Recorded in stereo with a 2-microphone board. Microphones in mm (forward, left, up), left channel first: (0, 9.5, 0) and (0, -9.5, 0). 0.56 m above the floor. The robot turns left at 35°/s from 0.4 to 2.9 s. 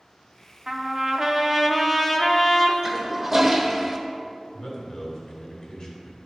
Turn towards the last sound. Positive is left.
turn(degrees=30)  # may be behind; listen again after turning